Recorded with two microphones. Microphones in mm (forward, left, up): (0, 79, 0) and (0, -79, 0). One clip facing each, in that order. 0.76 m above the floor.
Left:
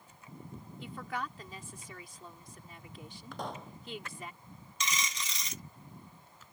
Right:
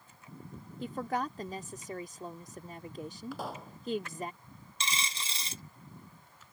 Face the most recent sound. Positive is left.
turn(degrees=-30)  # may be behind; listen again after turning